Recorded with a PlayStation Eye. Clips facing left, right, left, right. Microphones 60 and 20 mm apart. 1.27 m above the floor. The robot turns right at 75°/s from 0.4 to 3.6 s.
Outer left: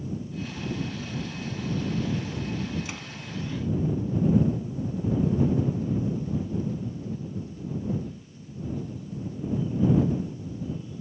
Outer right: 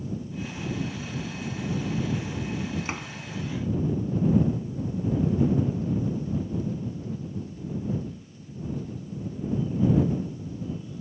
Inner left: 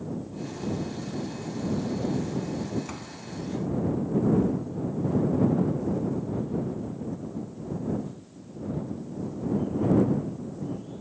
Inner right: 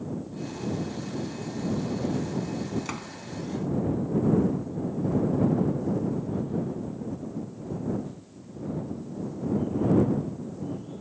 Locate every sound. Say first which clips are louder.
2.9 s a door slam: outer right 4 dB, inner right 3 dB; 40° right (ahead or behind); by 3.1 s 20° right (ahead or behind)